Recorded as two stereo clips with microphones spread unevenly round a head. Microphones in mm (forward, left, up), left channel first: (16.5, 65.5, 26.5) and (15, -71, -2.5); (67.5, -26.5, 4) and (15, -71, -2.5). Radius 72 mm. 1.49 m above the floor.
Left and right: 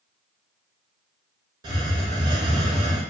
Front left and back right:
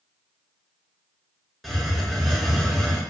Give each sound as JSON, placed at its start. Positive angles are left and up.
{"t": 1.6, "sound": "a hiss", "azimuth_deg": -35, "distance_m": 0.5}